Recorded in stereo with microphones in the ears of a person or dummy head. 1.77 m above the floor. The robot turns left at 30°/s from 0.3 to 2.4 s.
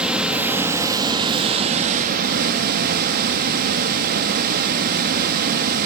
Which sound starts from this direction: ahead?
Running water, at 0.0 s.